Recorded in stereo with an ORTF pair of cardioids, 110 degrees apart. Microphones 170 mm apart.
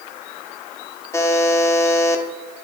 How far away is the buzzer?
About 0.7 m.